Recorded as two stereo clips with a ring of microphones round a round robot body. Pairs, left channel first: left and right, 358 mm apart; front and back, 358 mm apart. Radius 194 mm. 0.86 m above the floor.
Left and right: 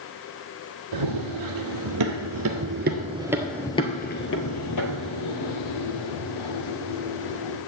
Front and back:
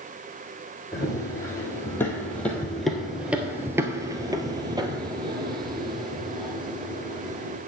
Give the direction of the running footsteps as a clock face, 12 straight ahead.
3 o'clock.